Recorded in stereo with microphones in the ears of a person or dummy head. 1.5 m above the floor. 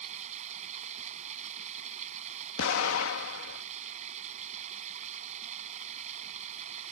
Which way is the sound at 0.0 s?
40° right (ahead or behind).